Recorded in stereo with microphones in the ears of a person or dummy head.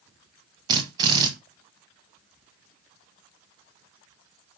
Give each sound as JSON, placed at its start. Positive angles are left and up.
{"t": 0.7, "sound": "a drill", "side_deg": -25, "distance_m": 1.6}